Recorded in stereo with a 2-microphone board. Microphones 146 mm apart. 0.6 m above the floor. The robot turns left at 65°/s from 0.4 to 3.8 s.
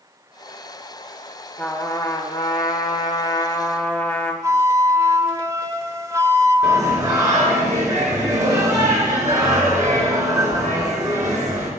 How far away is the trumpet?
About 1.1 m.